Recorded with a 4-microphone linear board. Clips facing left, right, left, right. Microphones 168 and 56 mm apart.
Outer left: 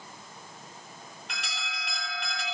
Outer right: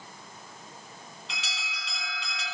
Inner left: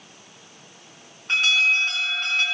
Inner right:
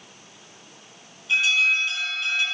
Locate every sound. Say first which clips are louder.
1.3 s an alarm: outer left 2 dB, inner left 1 dB; 60° left (ahead or behind), 2.5 m